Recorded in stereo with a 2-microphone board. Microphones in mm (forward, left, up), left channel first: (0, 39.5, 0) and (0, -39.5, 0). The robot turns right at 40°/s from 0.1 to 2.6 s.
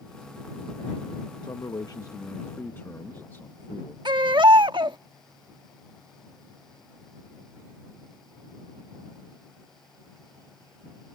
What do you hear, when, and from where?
1.4 s a man speaking: 105° left; by 4.0 s 150° left
4.0 s a baby crying: 80° right